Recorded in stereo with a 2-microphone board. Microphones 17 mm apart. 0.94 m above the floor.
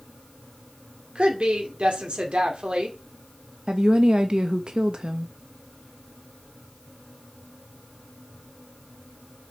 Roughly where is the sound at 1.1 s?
Right.